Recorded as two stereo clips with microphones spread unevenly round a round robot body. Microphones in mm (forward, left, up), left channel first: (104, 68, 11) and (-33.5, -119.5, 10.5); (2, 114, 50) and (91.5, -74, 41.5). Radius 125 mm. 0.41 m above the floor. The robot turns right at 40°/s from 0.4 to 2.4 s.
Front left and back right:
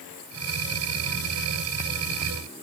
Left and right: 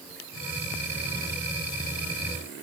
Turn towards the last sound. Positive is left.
No sound to turn to.